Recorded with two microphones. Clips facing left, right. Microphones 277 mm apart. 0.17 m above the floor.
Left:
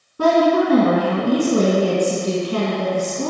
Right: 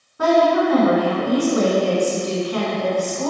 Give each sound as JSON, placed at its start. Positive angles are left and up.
{"t": 0.2, "sound": "a woman speaking", "side_deg": 40, "distance_m": 1.3}